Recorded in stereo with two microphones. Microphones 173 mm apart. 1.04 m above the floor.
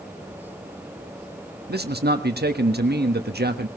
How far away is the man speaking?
About 1.4 m.